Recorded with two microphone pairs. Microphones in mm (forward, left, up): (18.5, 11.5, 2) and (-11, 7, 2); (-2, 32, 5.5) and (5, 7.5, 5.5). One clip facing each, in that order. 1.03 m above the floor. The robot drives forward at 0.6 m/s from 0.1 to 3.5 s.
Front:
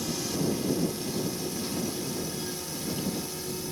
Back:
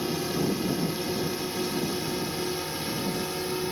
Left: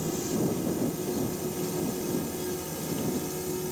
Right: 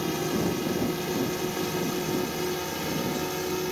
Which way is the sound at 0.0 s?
110° right.